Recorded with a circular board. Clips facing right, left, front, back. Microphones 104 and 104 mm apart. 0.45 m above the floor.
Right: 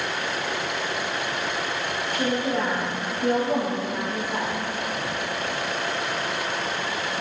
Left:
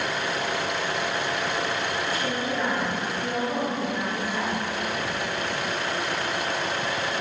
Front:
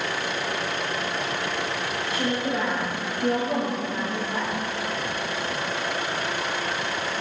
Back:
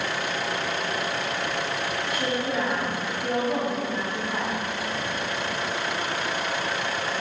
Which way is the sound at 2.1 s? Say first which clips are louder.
Right 3 dB, front 1 dB; 60° right.